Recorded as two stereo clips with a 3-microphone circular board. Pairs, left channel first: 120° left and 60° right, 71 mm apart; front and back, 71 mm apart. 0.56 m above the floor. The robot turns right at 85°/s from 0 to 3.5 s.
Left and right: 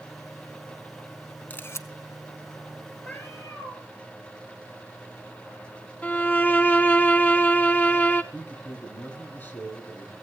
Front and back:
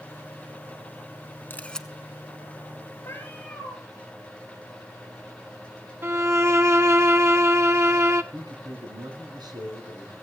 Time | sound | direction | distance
1.5 | a camera shutter | 55° left | 0.8 m
3.0 | a cat meowing | 50° left | 3 m
6.0 | a violin | 170° left | 0.8 m
8.3 | a man speaking | straight behind | 5 m